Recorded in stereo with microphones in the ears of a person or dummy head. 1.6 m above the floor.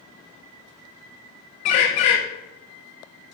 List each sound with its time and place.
1.6 s a bird: 30° left (ahead or behind), 0.8 m